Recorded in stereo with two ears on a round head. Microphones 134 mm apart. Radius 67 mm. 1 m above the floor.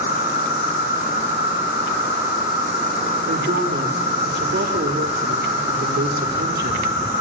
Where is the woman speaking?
65° right (ahead or behind), 2.5 m.